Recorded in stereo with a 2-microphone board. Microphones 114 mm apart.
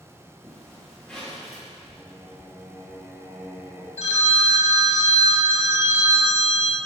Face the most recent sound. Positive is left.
turn(degrees=65)  # may be behind; listen again after turning